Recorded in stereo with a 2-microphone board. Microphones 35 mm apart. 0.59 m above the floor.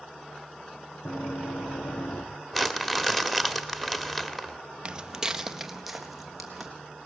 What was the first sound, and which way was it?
Running footsteps, 65° left (ahead or behind).